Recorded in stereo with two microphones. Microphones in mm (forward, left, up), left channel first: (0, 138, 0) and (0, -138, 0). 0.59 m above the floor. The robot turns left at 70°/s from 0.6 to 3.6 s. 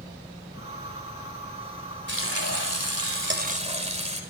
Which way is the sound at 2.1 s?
45° right.